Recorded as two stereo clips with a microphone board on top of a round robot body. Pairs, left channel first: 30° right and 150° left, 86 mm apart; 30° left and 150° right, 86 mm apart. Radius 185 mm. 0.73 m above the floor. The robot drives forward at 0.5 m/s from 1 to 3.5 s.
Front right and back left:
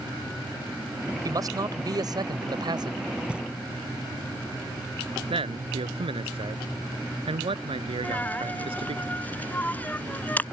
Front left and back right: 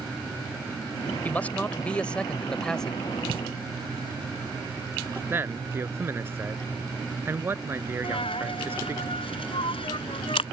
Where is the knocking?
130° right.